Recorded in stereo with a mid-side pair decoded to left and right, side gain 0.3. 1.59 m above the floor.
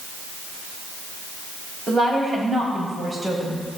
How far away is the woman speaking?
About 4.5 m.